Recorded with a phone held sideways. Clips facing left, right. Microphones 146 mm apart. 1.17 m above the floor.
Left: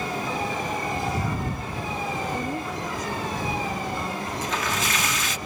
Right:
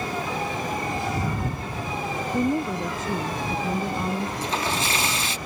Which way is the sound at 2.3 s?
25° right (ahead or behind).